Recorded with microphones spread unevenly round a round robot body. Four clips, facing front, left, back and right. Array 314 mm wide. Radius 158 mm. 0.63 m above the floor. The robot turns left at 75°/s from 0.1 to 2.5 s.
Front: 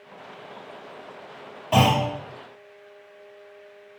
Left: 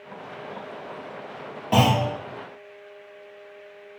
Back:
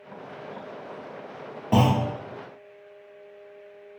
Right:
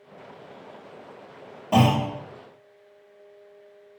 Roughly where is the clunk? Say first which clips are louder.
Even, front 2 dB; behind.